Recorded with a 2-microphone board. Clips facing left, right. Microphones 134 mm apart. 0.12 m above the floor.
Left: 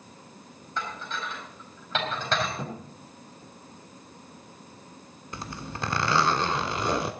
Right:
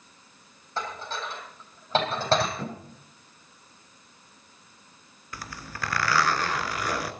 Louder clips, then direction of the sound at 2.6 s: Even; 15° left (ahead or behind).